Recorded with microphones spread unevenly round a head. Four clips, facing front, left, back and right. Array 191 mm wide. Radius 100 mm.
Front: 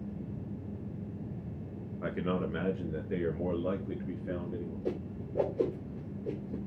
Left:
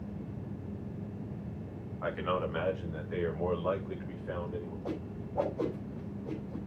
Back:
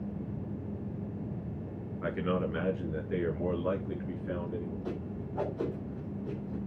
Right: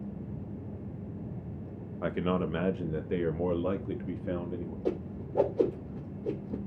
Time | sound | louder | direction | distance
2.0 | a man speaking | right 2 dB, back 2 dB | 120° right | 2 m
4.8 | a whoosh | right 5 dB, front 1 dB | 95° right | 3 m